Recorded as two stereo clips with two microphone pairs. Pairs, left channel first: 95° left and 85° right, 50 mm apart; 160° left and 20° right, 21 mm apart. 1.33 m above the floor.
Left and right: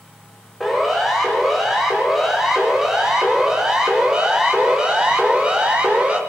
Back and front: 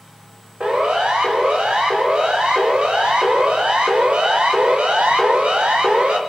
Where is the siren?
5° left, 7 m; by 6.2 s 15° right, 5.5 m.